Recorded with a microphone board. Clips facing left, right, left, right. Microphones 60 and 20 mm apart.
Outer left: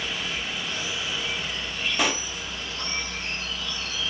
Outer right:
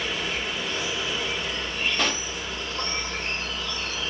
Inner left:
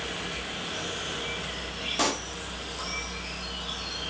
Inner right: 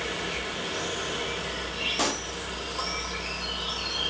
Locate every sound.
0.0 s an insect: 40° right (ahead or behind), 3 m
2.0 s a pop: 5° left (ahead or behind), 0.8 m